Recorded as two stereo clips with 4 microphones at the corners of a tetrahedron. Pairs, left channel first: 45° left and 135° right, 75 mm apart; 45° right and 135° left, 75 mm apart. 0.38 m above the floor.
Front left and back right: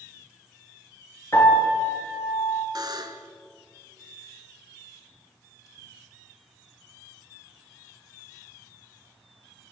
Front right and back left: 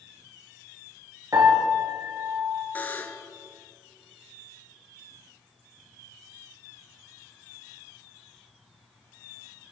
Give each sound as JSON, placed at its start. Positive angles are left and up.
{"t": 1.3, "sound": "a piano", "azimuth_deg": 100, "distance_m": 4.0}
{"t": 2.8, "sound": "a buzzer", "azimuth_deg": -110, "distance_m": 1.1}